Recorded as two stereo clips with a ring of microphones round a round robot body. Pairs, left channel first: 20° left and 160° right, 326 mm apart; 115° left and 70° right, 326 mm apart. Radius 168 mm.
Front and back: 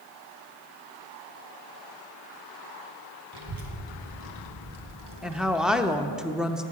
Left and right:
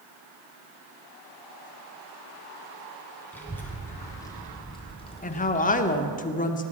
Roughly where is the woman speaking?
Behind left.